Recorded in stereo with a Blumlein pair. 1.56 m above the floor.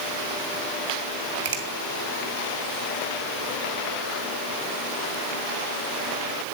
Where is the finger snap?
50° right, 1.1 m.